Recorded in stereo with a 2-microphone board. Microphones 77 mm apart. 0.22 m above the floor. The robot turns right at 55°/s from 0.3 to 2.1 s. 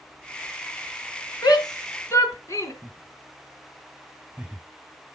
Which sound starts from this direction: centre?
Laughter, at 2.8 s.